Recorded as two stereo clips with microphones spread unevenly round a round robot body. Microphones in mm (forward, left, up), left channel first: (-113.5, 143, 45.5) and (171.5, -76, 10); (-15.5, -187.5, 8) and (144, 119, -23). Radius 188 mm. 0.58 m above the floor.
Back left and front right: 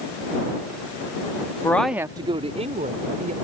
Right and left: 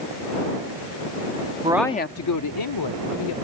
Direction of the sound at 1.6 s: 60° left.